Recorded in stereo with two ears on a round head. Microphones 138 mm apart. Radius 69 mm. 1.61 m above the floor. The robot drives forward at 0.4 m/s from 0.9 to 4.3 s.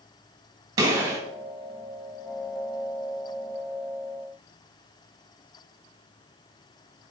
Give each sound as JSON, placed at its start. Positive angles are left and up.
{"t": 0.8, "sound": "a gunshot", "side_deg": -25, "distance_m": 2.0}